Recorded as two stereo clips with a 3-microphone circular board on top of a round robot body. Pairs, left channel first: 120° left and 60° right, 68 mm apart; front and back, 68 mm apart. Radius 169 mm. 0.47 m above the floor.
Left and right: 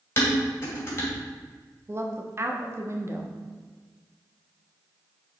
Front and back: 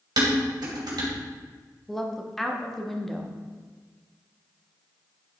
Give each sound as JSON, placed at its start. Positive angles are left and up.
{"t": 0.2, "sound": "dishes clattering", "azimuth_deg": 175, "distance_m": 2.5}
{"t": 1.9, "sound": "a woman speaking", "azimuth_deg": -85, "distance_m": 1.3}